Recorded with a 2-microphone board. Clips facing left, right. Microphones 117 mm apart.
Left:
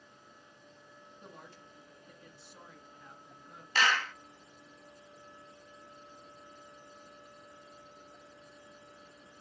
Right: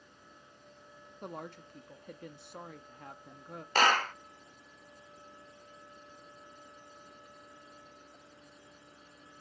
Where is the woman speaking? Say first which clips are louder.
Right 11 dB; 55° right (ahead or behind), 0.8 m.